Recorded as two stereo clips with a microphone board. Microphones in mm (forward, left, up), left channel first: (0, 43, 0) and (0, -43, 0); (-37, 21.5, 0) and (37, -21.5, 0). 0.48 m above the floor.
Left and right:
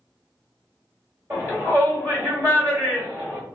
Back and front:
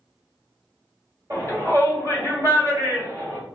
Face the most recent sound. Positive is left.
turn(degrees=-45)